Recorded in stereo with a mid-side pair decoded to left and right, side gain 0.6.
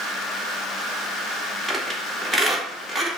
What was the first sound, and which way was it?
A squeak, 15° right.